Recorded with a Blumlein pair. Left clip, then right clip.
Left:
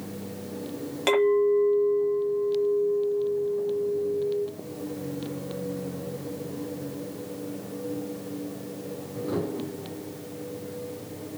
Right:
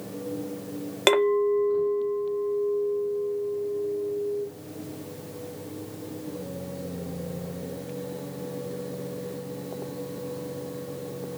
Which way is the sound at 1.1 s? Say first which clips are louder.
Even; 65° right.